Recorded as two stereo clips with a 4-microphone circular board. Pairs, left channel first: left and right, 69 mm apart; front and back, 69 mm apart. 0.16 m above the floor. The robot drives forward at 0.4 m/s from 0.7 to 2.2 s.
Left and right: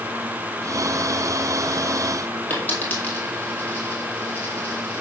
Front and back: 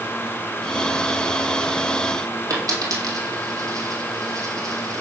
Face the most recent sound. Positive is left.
turn(degrees=155)